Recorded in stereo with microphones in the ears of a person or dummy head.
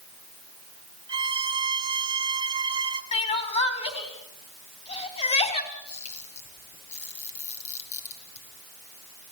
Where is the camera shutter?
35° left (ahead or behind), 7.5 m.